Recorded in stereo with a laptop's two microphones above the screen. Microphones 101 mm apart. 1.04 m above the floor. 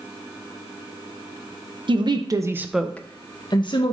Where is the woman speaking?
55° right (ahead or behind), 0.9 m; by 3.9 s 60° left (ahead or behind), 1.1 m.